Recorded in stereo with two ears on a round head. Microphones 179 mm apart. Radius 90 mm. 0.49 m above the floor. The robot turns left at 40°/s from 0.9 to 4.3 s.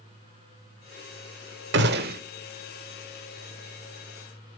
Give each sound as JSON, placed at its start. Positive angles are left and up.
{"t": 1.7, "sound": "a gunshot", "side_deg": -60, "distance_m": 1.1}